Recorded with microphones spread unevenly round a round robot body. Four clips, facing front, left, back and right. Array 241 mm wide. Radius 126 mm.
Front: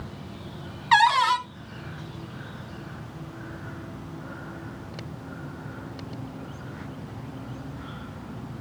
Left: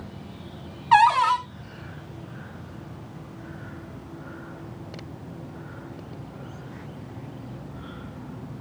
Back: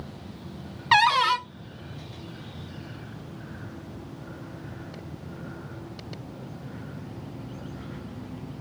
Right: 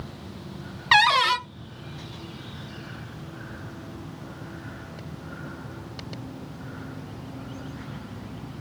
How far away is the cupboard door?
About 0.5 m.